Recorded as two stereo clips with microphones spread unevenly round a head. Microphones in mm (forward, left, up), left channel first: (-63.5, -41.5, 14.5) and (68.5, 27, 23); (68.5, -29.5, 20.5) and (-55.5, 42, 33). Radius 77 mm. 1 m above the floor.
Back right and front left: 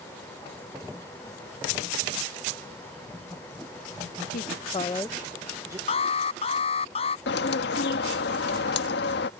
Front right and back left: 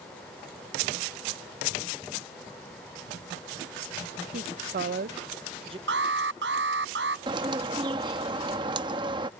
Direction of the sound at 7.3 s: 150° right.